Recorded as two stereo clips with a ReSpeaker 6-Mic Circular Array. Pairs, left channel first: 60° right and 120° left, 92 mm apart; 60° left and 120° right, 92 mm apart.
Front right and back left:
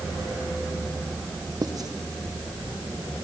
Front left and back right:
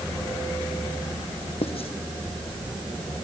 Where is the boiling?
No boiling in this recording.